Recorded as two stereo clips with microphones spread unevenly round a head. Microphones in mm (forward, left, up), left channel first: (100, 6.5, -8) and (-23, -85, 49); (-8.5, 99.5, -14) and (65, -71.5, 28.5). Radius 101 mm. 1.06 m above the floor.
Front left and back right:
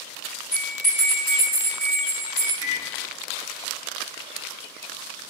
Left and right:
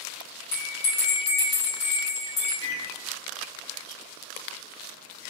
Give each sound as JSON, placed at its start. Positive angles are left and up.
{"t": 0.5, "sound": "a bell", "azimuth_deg": 145, "distance_m": 1.4}
{"t": 2.6, "sound": "a microwave", "azimuth_deg": -150, "distance_m": 1.5}